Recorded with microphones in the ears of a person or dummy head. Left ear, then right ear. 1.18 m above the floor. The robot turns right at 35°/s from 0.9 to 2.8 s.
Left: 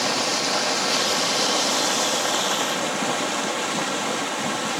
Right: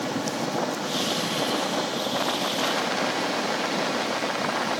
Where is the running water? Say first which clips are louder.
Left 6 dB; 70° left, 1.6 m; by 4.8 s 140° left, 1.6 m.